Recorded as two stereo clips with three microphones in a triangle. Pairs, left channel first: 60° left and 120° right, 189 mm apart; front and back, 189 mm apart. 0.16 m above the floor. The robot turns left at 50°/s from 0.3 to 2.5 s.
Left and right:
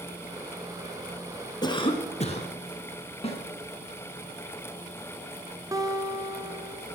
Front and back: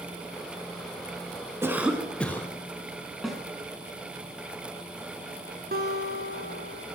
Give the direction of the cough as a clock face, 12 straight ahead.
8 o'clock.